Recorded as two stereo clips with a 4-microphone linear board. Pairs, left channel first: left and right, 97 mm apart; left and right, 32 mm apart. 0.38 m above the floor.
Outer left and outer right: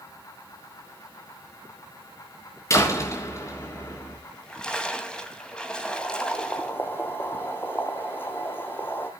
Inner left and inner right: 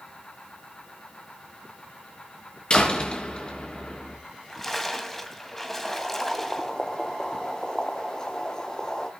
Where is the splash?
10° left (ahead or behind), 2 m.